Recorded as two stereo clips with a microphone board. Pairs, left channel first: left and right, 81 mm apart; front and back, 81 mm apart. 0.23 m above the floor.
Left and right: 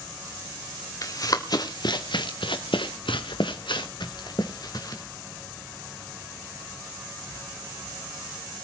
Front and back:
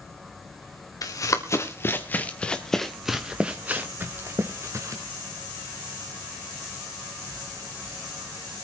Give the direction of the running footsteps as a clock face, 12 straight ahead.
11 o'clock.